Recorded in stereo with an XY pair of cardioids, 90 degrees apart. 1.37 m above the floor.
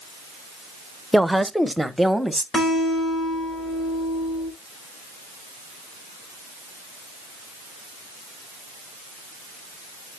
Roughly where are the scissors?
No scissors in this recording.